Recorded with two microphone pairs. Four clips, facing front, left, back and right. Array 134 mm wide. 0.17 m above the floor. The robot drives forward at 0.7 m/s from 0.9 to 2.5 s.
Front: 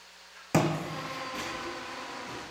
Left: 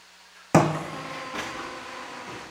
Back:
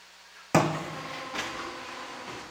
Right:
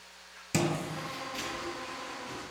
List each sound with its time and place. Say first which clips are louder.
0.5 s footsteps: left 10 dB, back 2 dB; 110° left, 0.6 m; by 2.4 s 140° left, 3 m